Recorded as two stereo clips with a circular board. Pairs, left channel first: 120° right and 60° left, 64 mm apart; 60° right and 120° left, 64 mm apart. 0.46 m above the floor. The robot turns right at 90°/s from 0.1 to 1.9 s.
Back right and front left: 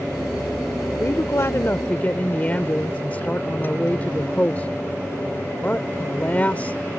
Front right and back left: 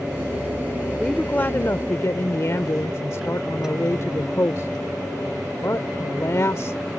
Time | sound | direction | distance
1.0 | a woman speaking | 145° right | ?